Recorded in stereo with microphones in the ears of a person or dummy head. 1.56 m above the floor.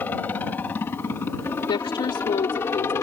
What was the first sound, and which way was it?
A helicopter, 5° left (ahead or behind).